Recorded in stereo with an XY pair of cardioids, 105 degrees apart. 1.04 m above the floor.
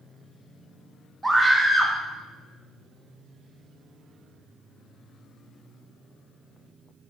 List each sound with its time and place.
1.2 s a scream: 20° right, 1.1 m